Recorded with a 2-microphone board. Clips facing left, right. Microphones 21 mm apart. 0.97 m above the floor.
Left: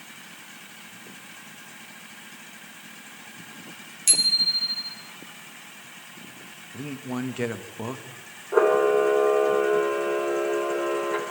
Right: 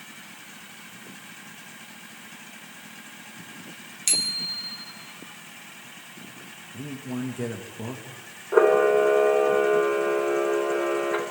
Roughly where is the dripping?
I don't hear dripping.